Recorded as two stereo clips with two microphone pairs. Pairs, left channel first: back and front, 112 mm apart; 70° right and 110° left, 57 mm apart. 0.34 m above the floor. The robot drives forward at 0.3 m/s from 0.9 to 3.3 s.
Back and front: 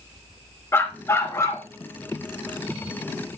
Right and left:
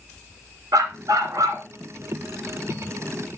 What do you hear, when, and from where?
0.7 s a dog barking: 110° left, 1.8 m; by 1.7 s 120° left, 1.9 m